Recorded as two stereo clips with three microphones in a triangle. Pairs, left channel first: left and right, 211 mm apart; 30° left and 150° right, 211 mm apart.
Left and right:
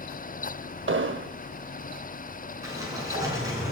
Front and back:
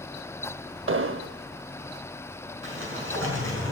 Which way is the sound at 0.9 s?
120° right.